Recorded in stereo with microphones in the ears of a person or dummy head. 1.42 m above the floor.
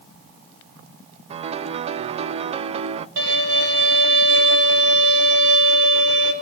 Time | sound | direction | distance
1.3 | a piano | 35° right (ahead or behind) | 0.7 m
3.2 | a violin | 70° right (ahead or behind) | 4.5 m